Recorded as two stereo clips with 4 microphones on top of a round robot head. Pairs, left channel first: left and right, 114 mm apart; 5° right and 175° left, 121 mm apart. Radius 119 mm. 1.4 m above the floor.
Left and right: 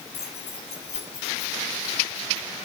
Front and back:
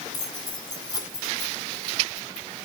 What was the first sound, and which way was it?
Keys jangling, 55° left.